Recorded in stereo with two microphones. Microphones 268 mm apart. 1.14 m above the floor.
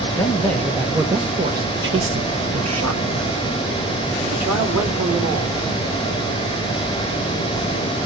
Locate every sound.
0.1 s a man speaking: 15° left (ahead or behind), 1.4 m; by 5.6 s 70° right (ahead or behind), 3.5 m